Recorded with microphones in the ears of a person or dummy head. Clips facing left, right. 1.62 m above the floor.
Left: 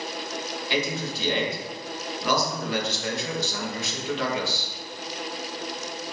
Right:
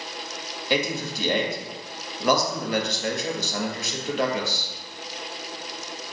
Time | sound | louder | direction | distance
0.7 | a man speaking | right 3 dB | 40° right (ahead or behind) | 0.8 m